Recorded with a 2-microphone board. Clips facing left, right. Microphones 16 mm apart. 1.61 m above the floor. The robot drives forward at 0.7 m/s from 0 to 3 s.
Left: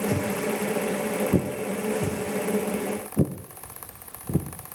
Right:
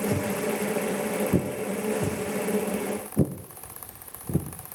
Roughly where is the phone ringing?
No phone ringing in this recording.